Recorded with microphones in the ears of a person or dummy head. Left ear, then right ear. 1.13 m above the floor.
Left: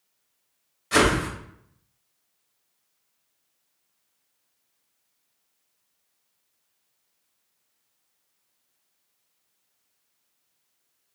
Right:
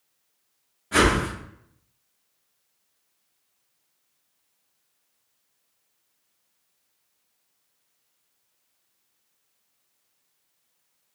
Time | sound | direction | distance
0.9 | a whoosh | 70° left (ahead or behind) | 1.9 m